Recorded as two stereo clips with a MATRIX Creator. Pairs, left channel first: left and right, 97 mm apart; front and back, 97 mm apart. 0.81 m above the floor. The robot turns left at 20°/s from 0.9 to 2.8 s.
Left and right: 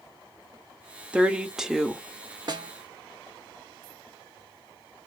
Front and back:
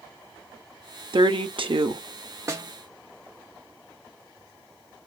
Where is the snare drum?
125° right, 0.7 m; by 2.7 s 130° right, 0.7 m.